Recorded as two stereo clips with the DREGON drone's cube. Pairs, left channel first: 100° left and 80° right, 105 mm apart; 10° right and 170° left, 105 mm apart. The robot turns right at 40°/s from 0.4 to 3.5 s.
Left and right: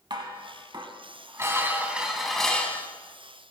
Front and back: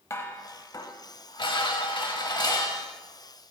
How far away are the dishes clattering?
About 1.2 m.